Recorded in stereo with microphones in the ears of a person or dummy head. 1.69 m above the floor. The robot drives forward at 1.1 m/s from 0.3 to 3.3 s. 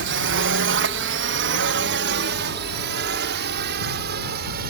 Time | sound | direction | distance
0.0 | a drone | 60° right (ahead or behind) | ?